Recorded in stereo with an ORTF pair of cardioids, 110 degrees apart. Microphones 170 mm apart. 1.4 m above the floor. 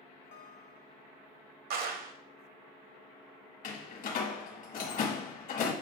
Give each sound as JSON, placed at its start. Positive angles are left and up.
{"t": 0.3, "sound": "a guitar", "azimuth_deg": 55, "distance_m": 1.5}
{"t": 1.7, "sound": "a clap", "azimuth_deg": -60, "distance_m": 0.9}
{"t": 3.6, "sound": "a door slam", "azimuth_deg": 55, "distance_m": 1.4}